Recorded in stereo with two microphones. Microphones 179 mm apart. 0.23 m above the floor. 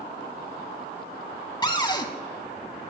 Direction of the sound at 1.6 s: 25° left (ahead or behind).